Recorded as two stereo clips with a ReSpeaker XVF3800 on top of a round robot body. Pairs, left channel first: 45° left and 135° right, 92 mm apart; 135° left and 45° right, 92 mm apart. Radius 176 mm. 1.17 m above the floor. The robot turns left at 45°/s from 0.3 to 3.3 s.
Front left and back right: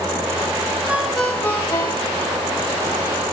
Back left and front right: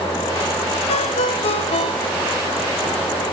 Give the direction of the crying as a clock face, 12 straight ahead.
No crying in this recording.